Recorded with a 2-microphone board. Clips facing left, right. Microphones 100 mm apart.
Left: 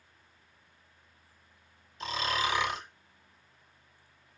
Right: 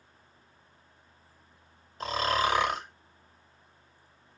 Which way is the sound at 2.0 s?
50° right (ahead or behind).